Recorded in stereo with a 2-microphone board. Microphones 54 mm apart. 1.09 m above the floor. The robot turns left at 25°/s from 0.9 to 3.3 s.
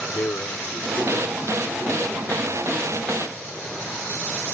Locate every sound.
0.1 s a man speaking: 50° left; by 3.7 s 10° right